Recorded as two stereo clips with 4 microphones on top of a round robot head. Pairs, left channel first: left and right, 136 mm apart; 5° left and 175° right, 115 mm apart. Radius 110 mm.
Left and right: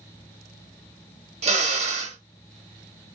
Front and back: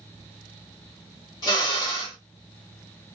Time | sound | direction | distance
1.4 | a drill | 55° right | 1.1 m